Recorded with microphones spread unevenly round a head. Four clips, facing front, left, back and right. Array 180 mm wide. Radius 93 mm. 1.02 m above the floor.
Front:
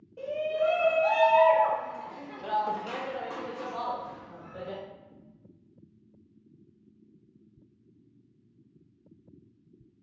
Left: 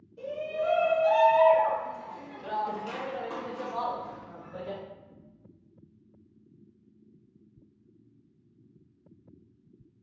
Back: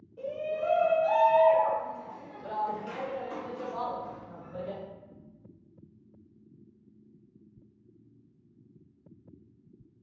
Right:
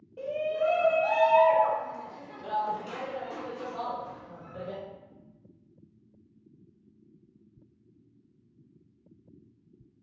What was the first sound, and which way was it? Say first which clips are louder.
A shout: right 3 dB, front 4 dB; 45° right.